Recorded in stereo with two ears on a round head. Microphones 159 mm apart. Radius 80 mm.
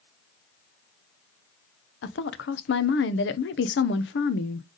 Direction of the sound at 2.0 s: 70° left (ahead or behind).